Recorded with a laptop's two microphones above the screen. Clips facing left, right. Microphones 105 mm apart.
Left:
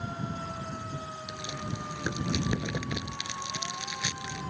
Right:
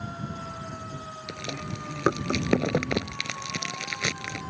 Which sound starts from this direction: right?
Chewing, at 1.3 s.